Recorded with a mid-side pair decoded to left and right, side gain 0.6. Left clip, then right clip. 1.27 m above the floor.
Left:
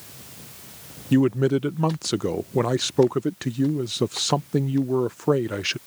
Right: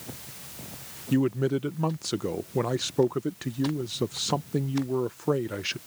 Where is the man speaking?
30° left.